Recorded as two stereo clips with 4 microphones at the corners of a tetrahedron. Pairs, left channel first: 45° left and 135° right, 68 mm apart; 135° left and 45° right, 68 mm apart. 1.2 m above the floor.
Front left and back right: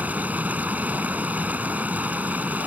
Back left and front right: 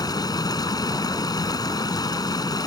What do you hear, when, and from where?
0.0 s running water: 155° left